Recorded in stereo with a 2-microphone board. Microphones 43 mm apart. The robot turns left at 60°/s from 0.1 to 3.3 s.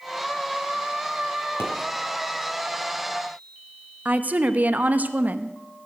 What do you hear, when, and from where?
1.6 s a pop: 70° left (ahead or behind), 3 m; by 1.7 s 75° left (ahead or behind), 3 m
4.0 s a woman speaking: 35° right (ahead or behind), 0.7 m